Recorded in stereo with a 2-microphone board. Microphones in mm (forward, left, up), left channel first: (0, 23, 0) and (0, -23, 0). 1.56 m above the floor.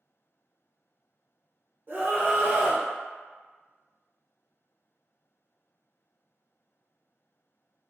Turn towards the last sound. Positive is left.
turn(degrees=-45)  # may be behind; listen again after turning